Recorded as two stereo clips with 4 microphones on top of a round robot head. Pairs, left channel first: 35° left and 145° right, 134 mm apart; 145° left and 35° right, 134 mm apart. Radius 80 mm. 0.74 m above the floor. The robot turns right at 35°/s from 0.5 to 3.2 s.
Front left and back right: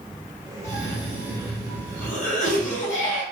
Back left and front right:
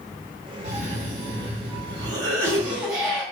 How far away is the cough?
About 2 m.